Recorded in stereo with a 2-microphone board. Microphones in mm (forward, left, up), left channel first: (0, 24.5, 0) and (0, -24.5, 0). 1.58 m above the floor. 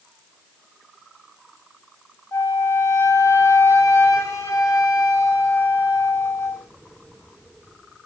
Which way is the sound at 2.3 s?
80° left.